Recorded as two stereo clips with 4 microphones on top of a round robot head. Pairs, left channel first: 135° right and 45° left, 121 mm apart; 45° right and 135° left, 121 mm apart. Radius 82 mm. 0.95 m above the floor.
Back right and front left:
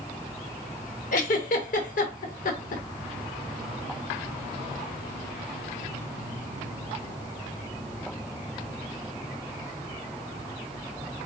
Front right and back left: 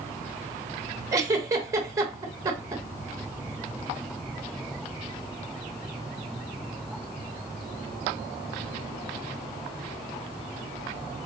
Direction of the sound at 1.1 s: 155° right.